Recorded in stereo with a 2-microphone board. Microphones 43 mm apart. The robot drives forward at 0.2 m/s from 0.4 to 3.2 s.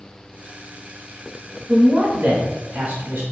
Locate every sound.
1.7 s a man speaking: 45° right (ahead or behind), 1.1 m; by 3.2 s 50° right (ahead or behind), 1.1 m